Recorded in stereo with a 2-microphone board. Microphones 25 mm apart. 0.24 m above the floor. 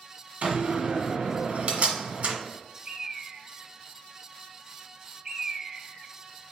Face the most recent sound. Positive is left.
turn(degrees=-25)  # may be behind; listen again after turning